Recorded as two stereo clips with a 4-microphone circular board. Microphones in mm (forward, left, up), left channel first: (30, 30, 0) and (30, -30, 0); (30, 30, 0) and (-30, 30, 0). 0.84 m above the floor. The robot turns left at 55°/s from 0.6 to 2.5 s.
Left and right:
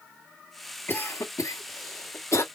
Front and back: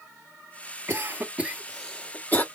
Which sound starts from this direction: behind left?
A cough, at 0.9 s.